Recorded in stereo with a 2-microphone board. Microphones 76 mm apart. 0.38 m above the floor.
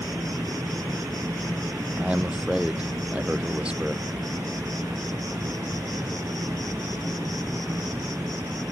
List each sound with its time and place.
0.0 s an insect: 50° right (ahead or behind)
1.9 s a man speaking: 15° right (ahead or behind)